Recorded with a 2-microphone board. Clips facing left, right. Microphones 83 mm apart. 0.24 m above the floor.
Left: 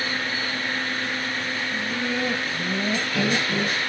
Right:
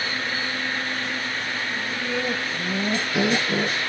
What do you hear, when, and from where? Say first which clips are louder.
1.7 s laughter: left 1 dB; 25° left (ahead or behind), 1.7 m; by 3.8 s 25° right (ahead or behind), 1.7 m